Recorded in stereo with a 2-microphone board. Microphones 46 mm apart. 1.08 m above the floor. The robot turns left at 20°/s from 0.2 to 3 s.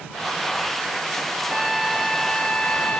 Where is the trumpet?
175° right; by 3.0 s 155° left.